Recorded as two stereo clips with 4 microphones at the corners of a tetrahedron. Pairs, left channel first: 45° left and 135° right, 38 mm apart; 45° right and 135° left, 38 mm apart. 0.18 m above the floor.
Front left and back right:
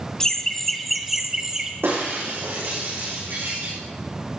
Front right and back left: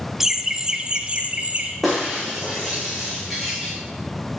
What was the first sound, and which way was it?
Laughter, 80° left.